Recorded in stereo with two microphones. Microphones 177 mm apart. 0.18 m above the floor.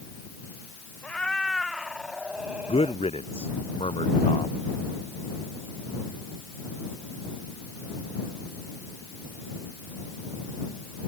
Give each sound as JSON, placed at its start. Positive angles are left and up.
{"t": 1.0, "sound": "a cat meowing", "side_deg": 5}
{"t": 2.7, "sound": "a man speaking", "side_deg": 30}